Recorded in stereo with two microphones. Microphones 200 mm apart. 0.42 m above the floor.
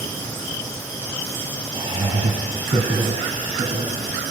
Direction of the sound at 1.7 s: 25° right (ahead or behind).